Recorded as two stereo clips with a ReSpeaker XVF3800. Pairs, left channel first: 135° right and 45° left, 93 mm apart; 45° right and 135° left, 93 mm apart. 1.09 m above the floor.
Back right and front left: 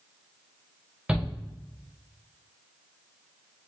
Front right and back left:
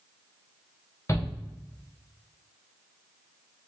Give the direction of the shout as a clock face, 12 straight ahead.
1 o'clock.